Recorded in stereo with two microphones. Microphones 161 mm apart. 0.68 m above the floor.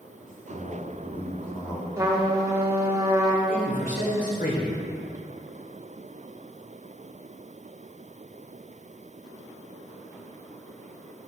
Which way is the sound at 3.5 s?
60° left (ahead or behind).